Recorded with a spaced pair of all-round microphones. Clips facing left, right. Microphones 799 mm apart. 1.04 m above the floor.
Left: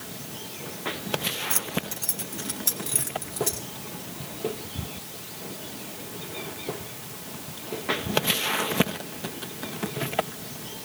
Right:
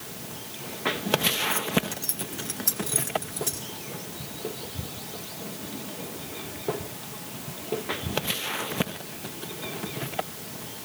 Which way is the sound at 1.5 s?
90° left.